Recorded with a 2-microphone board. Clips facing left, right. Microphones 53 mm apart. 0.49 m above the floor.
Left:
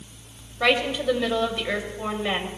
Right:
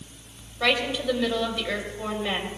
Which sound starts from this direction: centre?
A woman speaking, at 0.6 s.